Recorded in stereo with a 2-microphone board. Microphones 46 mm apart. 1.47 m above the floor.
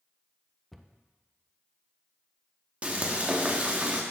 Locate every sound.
0.7 s a cupboard door: centre (ahead or behind), 0.5 m
2.8 s frying: 30° right (ahead or behind), 1.0 m